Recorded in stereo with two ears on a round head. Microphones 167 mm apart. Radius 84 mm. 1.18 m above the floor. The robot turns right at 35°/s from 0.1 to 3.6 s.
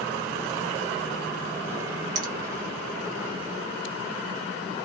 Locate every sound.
2.1 s a finger snap: 20° right (ahead or behind), 0.8 m; by 2.3 s 25° right (ahead or behind), 0.8 m